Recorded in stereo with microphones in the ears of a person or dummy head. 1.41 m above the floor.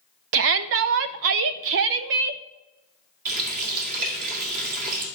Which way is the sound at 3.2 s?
50° right (ahead or behind).